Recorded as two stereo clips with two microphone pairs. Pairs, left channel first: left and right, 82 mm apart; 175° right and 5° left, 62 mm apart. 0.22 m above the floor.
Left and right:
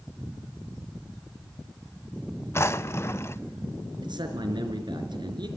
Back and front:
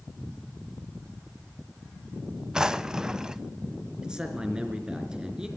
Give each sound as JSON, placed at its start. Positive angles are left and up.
{"t": 2.5, "sound": "a drawer", "azimuth_deg": 80, "distance_m": 0.6}
{"t": 4.0, "sound": "a man speaking", "azimuth_deg": -75, "distance_m": 4.0}